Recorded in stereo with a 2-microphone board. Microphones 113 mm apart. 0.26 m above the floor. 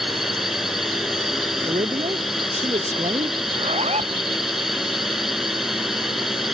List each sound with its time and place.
0.0 s a drone: centre (ahead or behind)
1.6 s a man speaking: 60° right (ahead or behind)
3.5 s a zipper: 70° right (ahead or behind)